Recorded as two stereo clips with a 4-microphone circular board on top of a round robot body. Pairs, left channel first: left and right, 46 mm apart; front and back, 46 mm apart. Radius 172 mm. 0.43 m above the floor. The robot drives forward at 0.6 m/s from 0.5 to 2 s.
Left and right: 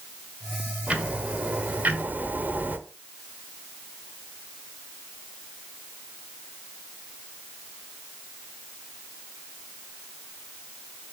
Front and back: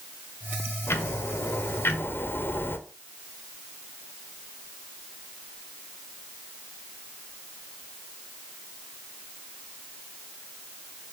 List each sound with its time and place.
0.9 s ticking: 25° right, 1.8 m; by 2.8 s 35° right, 1.3 m